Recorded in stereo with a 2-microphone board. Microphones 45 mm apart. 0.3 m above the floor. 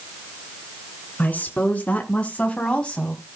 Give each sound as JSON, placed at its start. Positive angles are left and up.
{"t": 1.2, "sound": "a woman speaking", "side_deg": 30, "distance_m": 2.5}